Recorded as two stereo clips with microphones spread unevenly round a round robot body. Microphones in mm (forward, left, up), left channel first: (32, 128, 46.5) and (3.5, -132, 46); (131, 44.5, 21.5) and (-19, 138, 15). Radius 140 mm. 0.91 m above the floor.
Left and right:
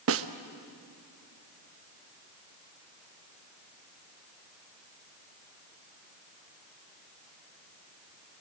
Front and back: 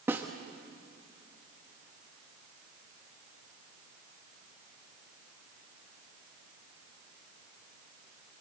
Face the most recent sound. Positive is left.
turn(degrees=-130)